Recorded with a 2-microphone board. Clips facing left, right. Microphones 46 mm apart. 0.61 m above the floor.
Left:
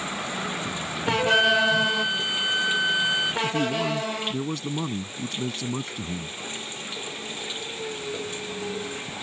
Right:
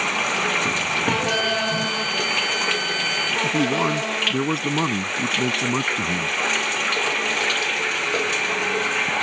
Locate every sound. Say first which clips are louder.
0.0 s running water: right 8 dB; 80° right
1.2 s a flute: left 2 dB; 30° left (ahead or behind)
3.4 s a man speaking: right 5 dB; 45° right (ahead or behind)